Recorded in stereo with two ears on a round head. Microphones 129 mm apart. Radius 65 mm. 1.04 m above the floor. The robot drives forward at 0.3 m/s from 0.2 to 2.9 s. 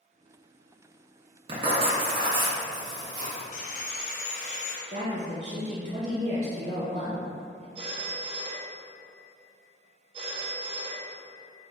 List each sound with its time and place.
1.5 s writing: 40° right (ahead or behind), 0.8 m; by 3.4 s 30° right (ahead or behind), 1.2 m
3.5 s sawing: 55° left (ahead or behind), 0.6 m
4.9 s a woman speaking: 35° right (ahead or behind), 0.8 m
7.8 s a phone ringing: 35° right (ahead or behind), 0.7 m